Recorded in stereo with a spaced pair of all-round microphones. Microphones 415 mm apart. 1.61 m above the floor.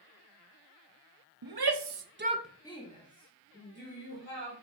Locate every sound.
1.4 s a shout: 55° right (ahead or behind), 1.0 m; by 4.5 s 30° left (ahead or behind), 3.5 m